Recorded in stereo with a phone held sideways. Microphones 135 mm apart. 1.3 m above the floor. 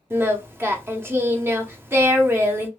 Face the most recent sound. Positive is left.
turn(degrees=-15)  # may be behind; listen again after turning